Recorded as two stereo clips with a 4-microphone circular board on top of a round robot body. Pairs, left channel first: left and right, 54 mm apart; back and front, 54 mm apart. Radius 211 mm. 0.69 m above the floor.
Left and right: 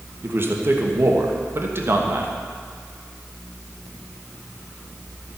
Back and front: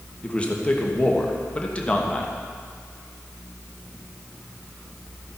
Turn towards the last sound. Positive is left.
turn(degrees=-115)